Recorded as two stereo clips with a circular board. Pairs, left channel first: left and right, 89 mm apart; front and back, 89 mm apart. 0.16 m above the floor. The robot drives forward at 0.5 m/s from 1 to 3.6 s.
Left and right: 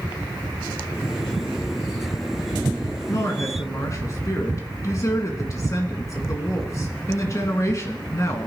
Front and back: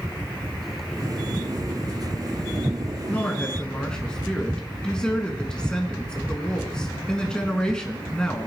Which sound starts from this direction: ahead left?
A woman speaking, at 3.1 s.